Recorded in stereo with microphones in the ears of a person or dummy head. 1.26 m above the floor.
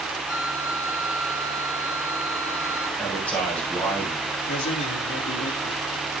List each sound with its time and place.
0.3 s a flute: 75° left (ahead or behind), 7 m
3.0 s a man speaking: 10° left (ahead or behind), 7 m
4.5 s a man speaking: 65° left (ahead or behind), 2.5 m